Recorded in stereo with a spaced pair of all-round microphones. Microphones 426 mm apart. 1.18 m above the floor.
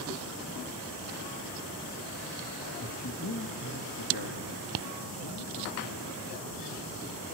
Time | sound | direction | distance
2.8 | a man speaking | 35° left (ahead or behind) | 1.2 m